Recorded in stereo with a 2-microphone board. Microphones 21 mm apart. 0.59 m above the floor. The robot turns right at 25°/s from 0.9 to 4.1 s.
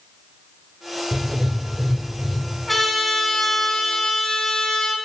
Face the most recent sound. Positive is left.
turn(degrees=40)